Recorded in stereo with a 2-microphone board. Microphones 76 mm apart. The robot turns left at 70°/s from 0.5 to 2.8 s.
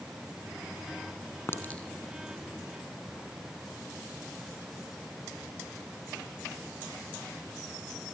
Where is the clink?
35° left (ahead or behind), 3 m; by 3.2 s 55° right (ahead or behind), 3 m.